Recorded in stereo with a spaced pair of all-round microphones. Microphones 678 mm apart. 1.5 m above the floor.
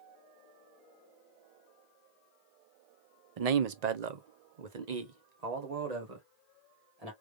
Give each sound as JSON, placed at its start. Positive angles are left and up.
{"t": 3.4, "sound": "a man speaking", "side_deg": -60, "distance_m": 0.6}